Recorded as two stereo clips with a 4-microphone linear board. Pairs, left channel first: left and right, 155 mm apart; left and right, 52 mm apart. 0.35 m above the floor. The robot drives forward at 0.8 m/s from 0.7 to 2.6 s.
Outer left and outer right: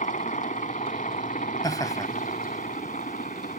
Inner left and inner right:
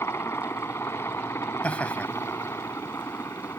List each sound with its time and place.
0.0 s a helicopter: 55° left (ahead or behind); by 3.6 s 60° left (ahead or behind)
1.6 s laughter: 25° left (ahead or behind); by 3.6 s 20° left (ahead or behind)